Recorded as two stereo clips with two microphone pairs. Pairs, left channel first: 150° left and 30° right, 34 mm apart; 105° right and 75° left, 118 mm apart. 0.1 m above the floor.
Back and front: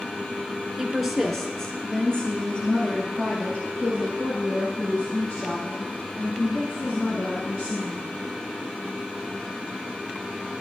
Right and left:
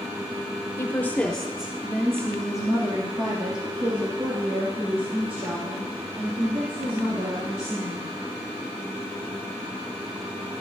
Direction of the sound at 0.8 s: 105° right.